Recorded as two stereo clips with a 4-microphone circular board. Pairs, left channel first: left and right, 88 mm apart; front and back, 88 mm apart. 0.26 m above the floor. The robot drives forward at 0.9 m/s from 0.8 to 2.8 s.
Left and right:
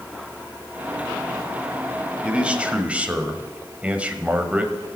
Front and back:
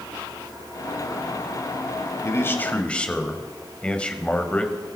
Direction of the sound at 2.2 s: 20° right.